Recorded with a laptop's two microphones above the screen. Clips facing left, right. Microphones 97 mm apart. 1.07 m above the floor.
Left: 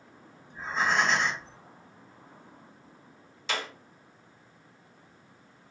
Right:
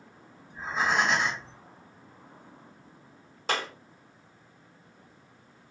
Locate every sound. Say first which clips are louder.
0.5 s breathing: even; 5° right (ahead or behind), 1.3 m
3.5 s a clap: right 3 dB; 50° right (ahead or behind), 0.9 m